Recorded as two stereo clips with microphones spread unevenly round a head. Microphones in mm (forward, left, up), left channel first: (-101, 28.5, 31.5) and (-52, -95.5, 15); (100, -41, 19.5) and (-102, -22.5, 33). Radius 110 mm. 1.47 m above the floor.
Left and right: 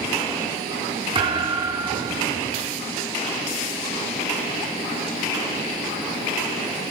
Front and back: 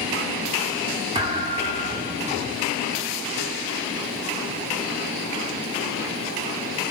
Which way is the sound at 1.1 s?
115° right.